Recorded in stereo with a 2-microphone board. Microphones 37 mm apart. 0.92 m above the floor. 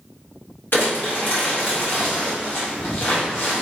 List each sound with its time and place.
0.7 s crumpling: 60° left (ahead or behind), 1.3 m